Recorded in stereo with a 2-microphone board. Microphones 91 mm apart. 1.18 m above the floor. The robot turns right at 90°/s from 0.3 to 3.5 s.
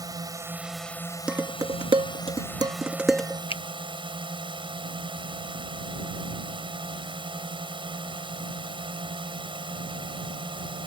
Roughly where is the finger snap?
Left.